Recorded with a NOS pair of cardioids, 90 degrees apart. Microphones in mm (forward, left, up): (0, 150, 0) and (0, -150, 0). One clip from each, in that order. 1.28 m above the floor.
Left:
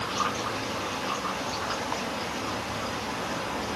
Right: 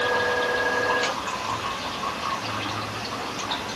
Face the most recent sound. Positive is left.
No sound to turn to.